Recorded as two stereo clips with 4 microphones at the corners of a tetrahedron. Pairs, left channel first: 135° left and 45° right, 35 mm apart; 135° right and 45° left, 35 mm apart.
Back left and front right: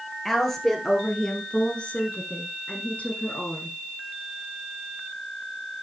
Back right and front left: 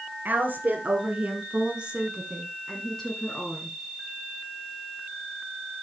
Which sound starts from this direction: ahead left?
A woman speaking, at 0.2 s.